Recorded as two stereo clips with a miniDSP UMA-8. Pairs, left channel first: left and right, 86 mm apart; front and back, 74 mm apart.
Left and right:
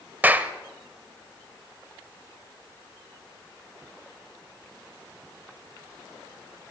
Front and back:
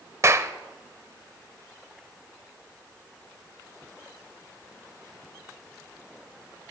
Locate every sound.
0.2 s a clap: 150° right, 0.8 m